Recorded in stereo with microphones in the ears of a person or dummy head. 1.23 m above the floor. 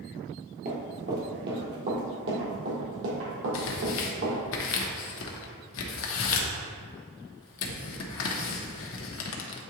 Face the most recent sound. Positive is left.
turn(degrees=70)  # may be behind; listen again after turning